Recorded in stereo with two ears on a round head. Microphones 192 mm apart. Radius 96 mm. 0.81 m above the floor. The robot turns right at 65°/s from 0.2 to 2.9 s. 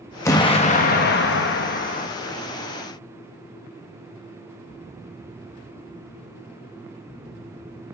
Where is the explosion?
15° left, 0.9 m; by 2.1 s 135° left, 0.9 m.